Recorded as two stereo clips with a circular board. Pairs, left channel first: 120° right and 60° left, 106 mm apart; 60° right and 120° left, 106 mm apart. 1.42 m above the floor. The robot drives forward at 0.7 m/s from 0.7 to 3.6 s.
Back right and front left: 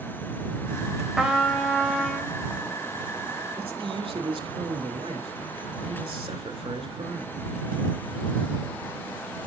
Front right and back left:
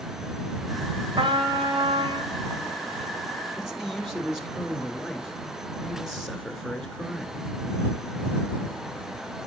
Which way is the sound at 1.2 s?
145° left.